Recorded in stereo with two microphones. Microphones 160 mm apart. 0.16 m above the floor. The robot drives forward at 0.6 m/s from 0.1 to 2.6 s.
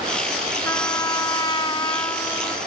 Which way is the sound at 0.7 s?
20° left (ahead or behind).